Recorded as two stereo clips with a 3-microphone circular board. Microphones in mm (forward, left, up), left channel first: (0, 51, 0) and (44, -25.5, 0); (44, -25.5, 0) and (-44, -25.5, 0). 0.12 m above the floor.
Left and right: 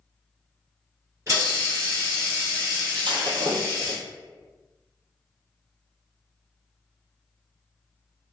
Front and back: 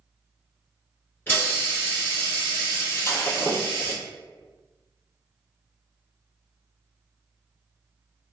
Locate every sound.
1.3 s a hiss: 45° right, 1.7 m
2.9 s breaking glass: 55° right, 0.9 m